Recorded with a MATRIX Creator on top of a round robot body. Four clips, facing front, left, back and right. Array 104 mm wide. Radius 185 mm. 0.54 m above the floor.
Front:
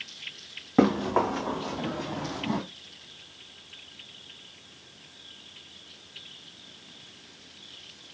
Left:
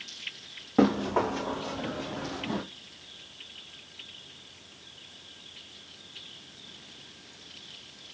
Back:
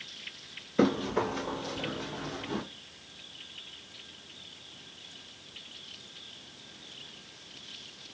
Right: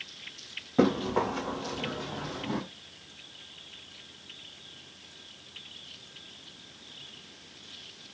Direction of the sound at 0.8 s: 10° left.